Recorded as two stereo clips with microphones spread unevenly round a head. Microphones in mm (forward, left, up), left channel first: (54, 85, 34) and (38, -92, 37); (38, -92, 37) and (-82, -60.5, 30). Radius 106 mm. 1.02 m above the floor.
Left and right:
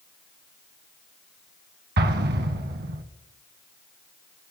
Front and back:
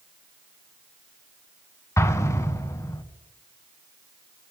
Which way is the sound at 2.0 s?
75° right.